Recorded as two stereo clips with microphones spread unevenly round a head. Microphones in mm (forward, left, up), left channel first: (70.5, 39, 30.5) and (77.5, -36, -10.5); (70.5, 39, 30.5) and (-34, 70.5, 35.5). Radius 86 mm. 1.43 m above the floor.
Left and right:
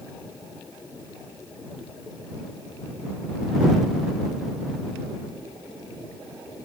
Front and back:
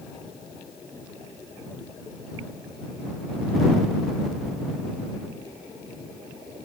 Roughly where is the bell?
I don't hear a bell.